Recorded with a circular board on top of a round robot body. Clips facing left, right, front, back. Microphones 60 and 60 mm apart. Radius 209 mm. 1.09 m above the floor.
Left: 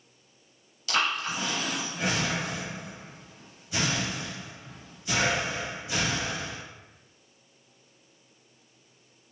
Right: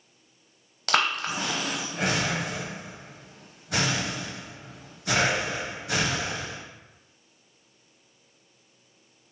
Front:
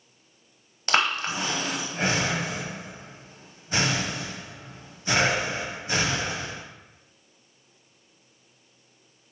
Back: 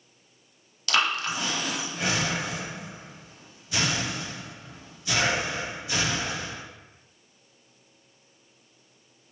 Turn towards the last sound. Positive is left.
turn(degrees=-60)